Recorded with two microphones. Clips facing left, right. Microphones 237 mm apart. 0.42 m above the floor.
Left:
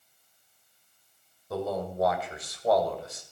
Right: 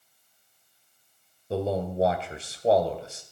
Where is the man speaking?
30° right (ahead or behind), 2 m.